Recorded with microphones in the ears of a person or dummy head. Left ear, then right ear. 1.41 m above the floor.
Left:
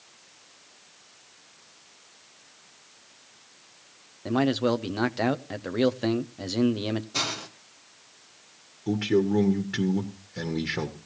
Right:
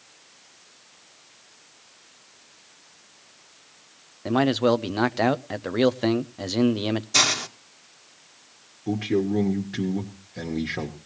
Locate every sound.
4.2 s a man speaking: 15° right (ahead or behind), 0.5 m
7.1 s a hiss: 60° right (ahead or behind), 1.1 m
8.9 s a man speaking: 10° left (ahead or behind), 1.1 m